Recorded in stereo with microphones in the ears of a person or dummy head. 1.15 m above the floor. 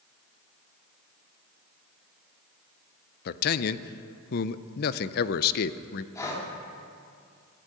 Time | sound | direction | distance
3.2 | a man speaking | 55° left (ahead or behind) | 0.6 m
6.2 | breathing | 20° left (ahead or behind) | 2 m